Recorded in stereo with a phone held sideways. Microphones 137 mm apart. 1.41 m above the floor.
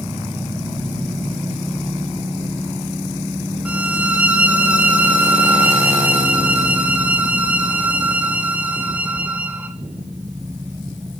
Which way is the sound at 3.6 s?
10° right (ahead or behind).